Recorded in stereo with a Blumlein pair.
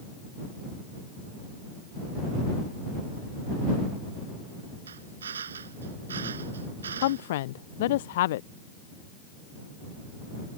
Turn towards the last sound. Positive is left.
turn(degrees=55)